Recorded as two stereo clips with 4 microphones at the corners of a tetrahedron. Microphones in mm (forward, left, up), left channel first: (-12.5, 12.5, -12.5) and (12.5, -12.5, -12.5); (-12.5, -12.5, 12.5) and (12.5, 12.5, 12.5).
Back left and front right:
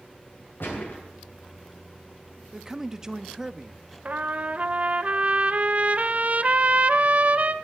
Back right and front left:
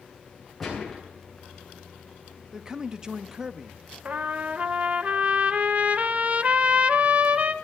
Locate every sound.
0.6 s a gunshot: 140° left, 8 m
2.5 s a man speaking: 10° left, 0.7 m
4.0 s a trumpet: straight ahead, 0.7 m